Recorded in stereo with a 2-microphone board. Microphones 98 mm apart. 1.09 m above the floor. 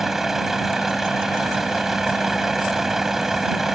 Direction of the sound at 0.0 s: 5° right (ahead or behind).